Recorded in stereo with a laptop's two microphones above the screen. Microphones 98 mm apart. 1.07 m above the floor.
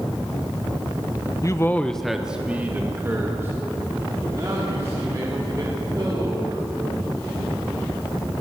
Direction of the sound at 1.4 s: 35° left (ahead or behind).